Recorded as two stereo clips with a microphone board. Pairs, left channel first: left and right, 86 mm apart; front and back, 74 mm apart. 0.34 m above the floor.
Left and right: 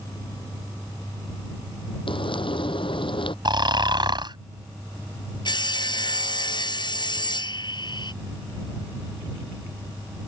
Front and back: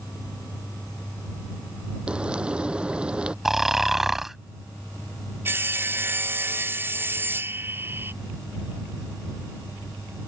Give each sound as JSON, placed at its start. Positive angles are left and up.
{"t": 2.1, "sound": "frying", "azimuth_deg": 105}
{"t": 3.5, "sound": "snoring", "azimuth_deg": -95}
{"t": 5.5, "sound": "sawing", "azimuth_deg": 120}